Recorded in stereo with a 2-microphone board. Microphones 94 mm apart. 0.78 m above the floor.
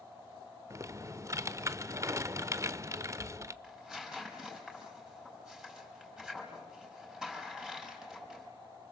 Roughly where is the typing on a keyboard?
Right.